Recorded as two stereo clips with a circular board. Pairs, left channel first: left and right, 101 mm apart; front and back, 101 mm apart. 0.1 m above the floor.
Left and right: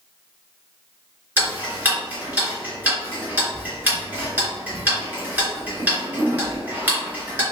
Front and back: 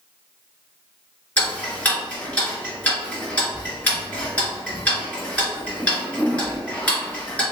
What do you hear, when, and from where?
1.4 s ticking: 50° right, 1.7 m